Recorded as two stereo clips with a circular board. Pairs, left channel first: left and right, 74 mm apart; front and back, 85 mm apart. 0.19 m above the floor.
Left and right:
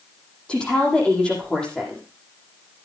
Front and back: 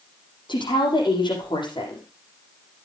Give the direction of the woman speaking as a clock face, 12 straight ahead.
12 o'clock.